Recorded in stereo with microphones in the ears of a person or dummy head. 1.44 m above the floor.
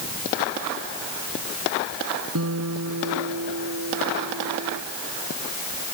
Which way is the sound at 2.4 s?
80° right.